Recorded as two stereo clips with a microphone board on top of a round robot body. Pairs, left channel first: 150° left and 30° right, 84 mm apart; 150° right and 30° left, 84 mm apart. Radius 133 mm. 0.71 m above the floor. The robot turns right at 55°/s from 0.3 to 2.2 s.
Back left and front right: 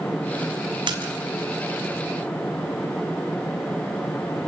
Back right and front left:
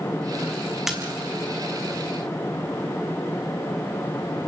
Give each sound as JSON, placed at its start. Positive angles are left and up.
{"t": 0.9, "sound": "a splash", "azimuth_deg": -55, "distance_m": 4.5}